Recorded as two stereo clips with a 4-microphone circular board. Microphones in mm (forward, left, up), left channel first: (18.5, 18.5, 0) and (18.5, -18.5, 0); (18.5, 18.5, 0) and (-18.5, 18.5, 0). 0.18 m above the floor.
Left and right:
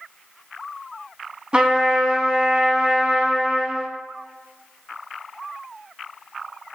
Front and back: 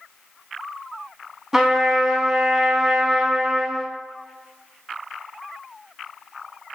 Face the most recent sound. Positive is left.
turn(degrees=-110)